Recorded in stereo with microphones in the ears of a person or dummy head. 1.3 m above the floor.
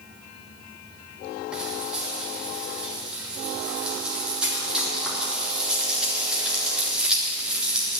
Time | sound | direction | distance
1.5 | frying | 10° right (ahead or behind) | 2.5 m